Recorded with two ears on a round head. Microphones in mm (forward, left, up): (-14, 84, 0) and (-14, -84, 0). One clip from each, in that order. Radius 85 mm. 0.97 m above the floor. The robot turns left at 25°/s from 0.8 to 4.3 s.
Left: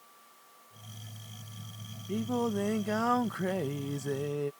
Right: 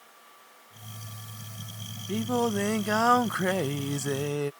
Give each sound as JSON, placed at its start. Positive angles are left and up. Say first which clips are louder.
{"t": 2.1, "sound": "singing", "louder": "right 5 dB", "azimuth_deg": -45}